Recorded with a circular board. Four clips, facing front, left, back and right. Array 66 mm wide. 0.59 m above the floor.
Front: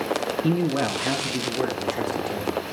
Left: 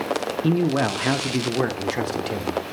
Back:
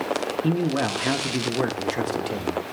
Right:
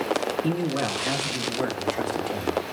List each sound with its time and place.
0.4 s a man speaking: 75° left, 0.7 m; by 2.7 s 115° left, 1.7 m